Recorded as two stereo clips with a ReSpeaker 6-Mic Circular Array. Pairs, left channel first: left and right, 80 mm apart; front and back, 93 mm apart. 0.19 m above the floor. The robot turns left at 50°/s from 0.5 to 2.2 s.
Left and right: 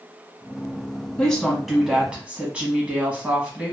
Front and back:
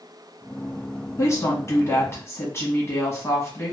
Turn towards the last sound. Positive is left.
turn(degrees=-30)